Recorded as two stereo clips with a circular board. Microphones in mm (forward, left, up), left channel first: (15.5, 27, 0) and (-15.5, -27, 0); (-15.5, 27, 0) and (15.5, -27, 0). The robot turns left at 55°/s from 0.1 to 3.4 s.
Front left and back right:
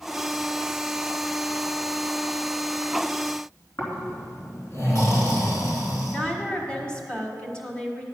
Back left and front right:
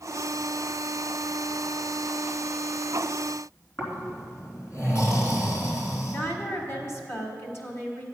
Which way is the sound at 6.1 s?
125° left.